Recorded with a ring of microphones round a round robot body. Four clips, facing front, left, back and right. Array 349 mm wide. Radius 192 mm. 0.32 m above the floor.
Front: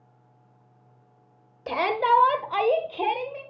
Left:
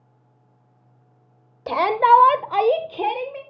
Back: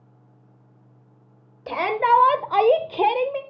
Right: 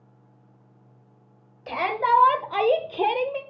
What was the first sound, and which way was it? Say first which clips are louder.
A shout: left 7 dB, back 3 dB; 90° left.